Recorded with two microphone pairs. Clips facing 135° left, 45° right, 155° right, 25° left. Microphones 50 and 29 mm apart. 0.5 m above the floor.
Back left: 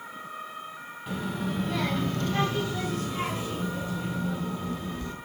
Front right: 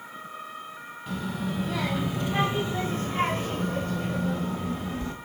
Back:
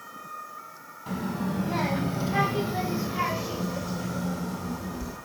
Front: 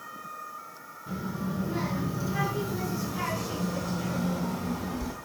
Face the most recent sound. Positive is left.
turn(degrees=-30)